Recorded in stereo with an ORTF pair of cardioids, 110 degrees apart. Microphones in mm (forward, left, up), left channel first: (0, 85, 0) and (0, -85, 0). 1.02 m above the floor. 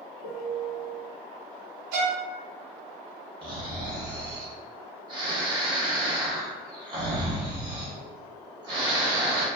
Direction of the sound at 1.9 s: 70° right.